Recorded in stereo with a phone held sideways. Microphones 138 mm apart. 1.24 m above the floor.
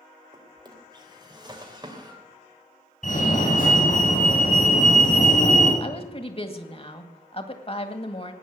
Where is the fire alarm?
70° left (ahead or behind), 8 m.